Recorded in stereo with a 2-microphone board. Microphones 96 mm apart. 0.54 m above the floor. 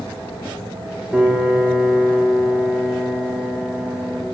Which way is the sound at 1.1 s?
10° right (ahead or behind).